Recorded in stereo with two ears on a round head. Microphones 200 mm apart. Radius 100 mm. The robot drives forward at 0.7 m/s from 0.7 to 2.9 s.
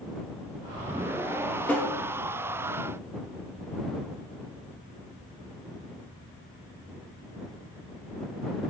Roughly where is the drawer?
Centre.